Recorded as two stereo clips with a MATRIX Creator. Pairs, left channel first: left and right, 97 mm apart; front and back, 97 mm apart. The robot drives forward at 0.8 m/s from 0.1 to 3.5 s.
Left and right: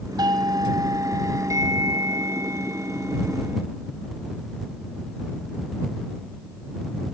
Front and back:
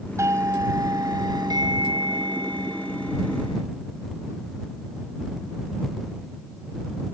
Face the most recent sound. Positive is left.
turn(degrees=-155)